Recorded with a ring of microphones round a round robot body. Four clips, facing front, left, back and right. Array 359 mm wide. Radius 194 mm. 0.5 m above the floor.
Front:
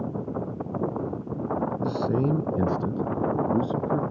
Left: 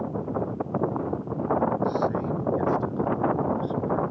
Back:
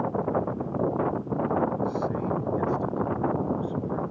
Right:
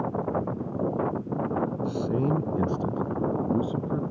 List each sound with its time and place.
1.8 s a man speaking: 25° right